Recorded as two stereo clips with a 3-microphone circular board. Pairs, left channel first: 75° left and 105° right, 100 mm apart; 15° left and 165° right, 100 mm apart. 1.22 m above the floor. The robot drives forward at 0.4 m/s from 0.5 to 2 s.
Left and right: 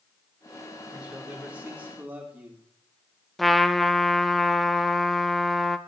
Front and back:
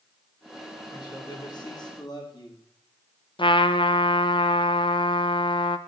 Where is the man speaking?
25° right, 3 m; by 2.6 s 30° right, 2.5 m.